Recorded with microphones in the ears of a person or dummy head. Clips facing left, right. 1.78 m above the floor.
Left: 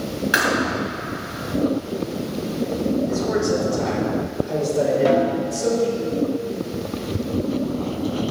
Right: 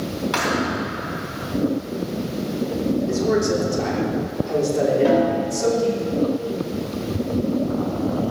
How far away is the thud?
About 3 m.